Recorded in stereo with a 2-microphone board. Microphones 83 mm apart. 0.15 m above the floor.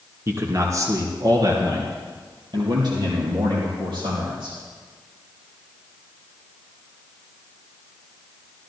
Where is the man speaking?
30° right (ahead or behind), 1.6 m; by 4.6 s 60° right (ahead or behind), 5 m.